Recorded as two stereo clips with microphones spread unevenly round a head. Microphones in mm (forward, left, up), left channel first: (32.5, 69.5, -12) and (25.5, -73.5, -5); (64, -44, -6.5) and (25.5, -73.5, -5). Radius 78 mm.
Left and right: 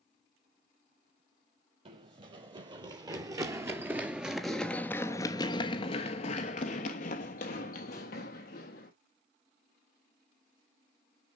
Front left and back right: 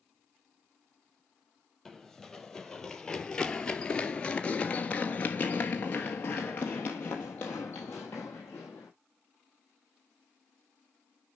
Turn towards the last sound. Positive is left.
turn(degrees=110)